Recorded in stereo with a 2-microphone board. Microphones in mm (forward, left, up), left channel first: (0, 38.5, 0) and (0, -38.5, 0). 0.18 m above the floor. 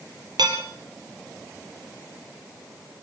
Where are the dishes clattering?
75° right (ahead or behind), 3 m.